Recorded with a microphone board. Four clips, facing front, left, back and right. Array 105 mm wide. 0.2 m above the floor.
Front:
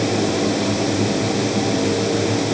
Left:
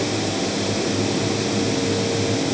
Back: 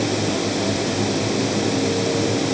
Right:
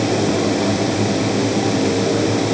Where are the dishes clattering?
No dishes clattering in this recording.